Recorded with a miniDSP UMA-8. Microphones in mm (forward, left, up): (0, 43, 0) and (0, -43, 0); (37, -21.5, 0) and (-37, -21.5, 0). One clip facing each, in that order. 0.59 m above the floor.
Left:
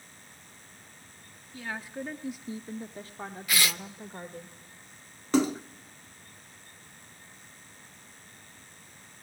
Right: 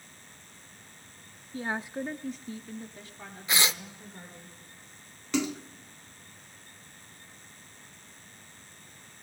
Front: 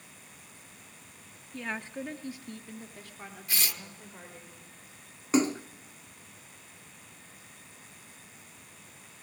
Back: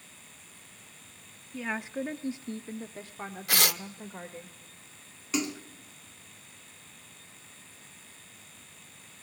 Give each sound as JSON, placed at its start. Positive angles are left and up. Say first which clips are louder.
{"t": 1.5, "sound": "a woman speaking", "louder": "right 4 dB, back 3 dB", "azimuth_deg": -100, "distance_m": 0.7}
{"t": 3.5, "sound": "tearing paper", "louder": "right 1 dB, back 7 dB", "azimuth_deg": -155, "distance_m": 0.5}
{"t": 5.3, "sound": "a splash", "louder": "left 5 dB, front 6 dB", "azimuth_deg": 45, "distance_m": 0.6}